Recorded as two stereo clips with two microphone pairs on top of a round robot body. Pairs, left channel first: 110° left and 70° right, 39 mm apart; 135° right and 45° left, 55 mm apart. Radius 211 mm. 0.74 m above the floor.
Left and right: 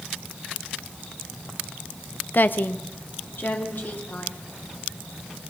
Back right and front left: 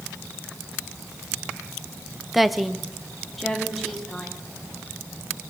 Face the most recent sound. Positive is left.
turn(degrees=140)